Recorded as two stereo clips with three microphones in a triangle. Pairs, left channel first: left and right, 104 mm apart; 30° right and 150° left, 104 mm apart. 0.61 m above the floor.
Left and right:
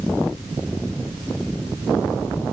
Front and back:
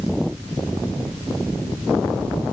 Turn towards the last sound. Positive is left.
No sound to turn to.